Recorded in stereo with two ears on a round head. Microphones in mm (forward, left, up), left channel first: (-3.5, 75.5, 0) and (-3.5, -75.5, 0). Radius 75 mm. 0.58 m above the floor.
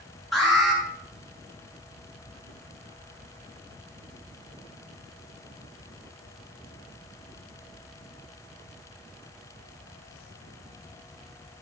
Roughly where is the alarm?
Centre.